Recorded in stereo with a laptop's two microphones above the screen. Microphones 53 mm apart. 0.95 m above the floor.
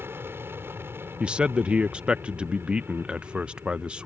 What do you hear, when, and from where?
0.0 s an aircraft: 45° right (ahead or behind)
1.2 s a man speaking: 20° right (ahead or behind)